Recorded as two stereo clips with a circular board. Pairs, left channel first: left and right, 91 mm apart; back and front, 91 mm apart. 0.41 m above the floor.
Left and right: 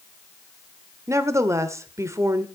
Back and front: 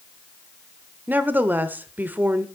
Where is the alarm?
I don't hear an alarm.